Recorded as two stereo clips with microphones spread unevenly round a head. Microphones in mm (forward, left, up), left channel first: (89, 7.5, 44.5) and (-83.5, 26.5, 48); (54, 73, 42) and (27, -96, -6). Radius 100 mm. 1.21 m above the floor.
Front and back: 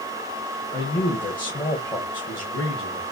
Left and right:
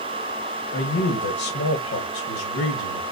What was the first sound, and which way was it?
A man speaking, 70° left.